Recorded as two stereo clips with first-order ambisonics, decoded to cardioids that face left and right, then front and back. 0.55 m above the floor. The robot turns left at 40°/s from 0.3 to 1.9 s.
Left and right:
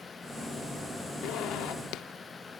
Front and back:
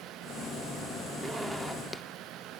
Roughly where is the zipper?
Left.